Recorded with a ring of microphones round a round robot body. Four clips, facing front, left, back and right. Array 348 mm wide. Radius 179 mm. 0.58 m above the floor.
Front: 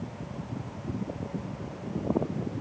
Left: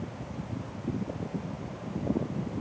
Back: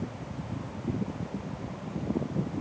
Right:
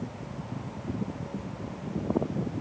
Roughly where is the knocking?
I don't hear knocking.